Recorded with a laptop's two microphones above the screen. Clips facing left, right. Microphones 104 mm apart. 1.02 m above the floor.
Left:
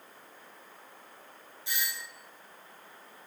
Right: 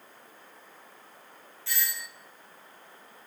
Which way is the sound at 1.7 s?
20° left (ahead or behind).